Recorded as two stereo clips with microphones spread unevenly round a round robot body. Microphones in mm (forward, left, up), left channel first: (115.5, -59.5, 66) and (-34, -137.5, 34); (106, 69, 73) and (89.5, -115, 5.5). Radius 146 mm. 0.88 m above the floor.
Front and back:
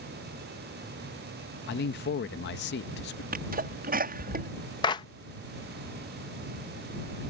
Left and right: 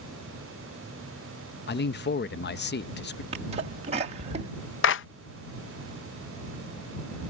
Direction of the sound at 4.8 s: 100° left.